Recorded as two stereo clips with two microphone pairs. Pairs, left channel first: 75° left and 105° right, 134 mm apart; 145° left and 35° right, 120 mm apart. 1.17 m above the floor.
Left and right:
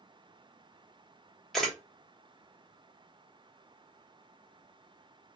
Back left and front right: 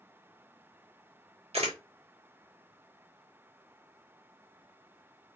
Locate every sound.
1.5 s a camera shutter: 10° right, 1.1 m